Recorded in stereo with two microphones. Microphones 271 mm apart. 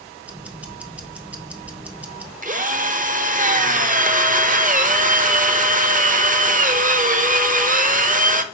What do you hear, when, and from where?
0.2 s ticking: 5° right (ahead or behind), 0.8 m
2.4 s a drill: 30° right (ahead or behind), 0.7 m